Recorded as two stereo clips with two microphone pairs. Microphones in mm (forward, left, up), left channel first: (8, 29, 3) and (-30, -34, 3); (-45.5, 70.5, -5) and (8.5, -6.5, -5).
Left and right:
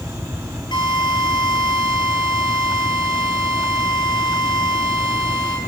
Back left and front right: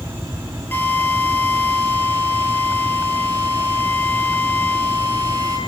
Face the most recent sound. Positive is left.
turn(degrees=60)